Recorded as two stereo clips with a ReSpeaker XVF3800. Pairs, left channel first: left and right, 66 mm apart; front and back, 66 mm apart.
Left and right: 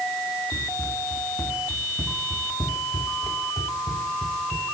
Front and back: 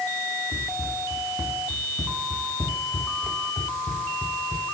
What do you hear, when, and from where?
0.5 s running footsteps: 130° left, 5 m; by 4.6 s 90° left, 4.5 m